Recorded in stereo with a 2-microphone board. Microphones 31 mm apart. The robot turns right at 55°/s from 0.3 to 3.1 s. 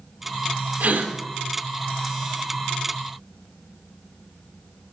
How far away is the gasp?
About 2 m.